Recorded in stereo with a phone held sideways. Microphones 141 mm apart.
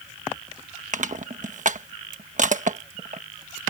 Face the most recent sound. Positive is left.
turn(degrees=-60)  # may be behind; listen again after turning